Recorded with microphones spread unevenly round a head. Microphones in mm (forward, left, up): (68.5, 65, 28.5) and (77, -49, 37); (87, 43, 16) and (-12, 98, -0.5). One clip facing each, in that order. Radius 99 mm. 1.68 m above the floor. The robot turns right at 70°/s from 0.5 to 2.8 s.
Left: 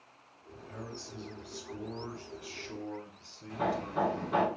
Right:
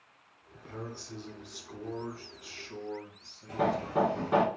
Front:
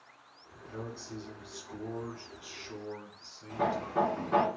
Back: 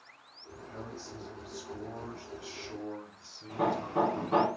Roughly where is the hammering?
Behind right.